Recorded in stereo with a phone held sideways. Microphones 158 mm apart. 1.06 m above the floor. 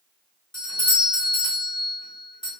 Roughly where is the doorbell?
Left.